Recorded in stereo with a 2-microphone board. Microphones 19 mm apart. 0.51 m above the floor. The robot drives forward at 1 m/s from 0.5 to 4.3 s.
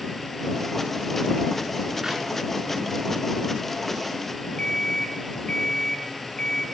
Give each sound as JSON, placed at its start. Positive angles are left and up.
{"t": 2.0, "sound": "a clap", "side_deg": -40, "distance_m": 5.0}
{"t": 4.6, "sound": "an alarm clock", "side_deg": 80, "distance_m": 3.5}